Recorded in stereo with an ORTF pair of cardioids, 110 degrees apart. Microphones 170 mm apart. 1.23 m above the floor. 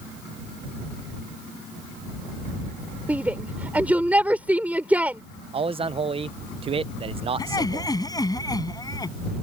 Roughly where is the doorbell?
No doorbell in this recording.